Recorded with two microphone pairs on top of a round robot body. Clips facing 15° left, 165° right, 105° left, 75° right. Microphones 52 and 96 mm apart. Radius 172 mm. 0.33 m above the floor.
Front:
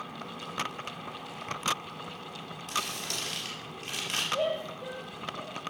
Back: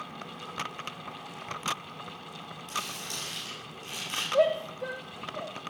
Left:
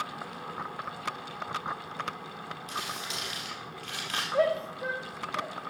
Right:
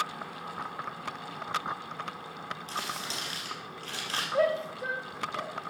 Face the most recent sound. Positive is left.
turn(degrees=-165)